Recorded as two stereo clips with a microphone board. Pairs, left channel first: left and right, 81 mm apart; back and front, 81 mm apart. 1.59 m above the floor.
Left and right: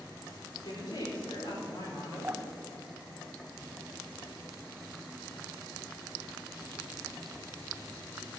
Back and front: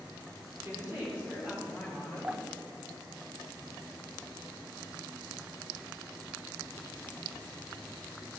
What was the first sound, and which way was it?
A woman speaking, 65° left.